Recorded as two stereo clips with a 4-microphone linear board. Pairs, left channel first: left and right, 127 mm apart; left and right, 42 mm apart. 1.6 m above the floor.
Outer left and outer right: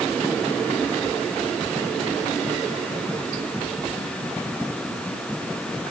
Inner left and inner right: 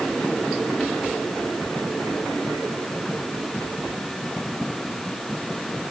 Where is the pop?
No pop in this recording.